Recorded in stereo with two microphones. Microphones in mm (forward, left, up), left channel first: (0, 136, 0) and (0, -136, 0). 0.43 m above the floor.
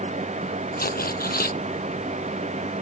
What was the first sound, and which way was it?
Tearing paper, 35° left (ahead or behind).